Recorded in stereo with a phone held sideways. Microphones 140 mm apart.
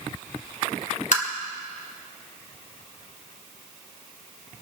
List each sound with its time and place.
1.1 s tapping: 60° left (ahead or behind), 2 m